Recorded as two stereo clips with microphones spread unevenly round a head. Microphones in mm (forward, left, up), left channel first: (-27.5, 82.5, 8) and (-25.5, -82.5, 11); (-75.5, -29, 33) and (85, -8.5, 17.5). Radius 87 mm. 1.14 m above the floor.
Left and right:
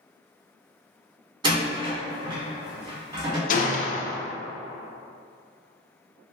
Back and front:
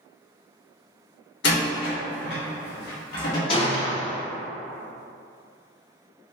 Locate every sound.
1.4 s a door slam: 150° right, 1.7 m
3.5 s a gunshot: 130° left, 0.6 m